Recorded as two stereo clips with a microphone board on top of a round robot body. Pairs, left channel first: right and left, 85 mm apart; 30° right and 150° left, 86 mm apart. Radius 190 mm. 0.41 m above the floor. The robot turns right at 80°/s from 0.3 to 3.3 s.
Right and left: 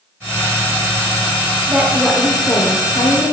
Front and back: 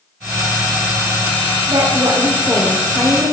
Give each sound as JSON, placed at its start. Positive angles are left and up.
{"t": 1.7, "sound": "a woman speaking", "azimuth_deg": 155, "distance_m": 1.5}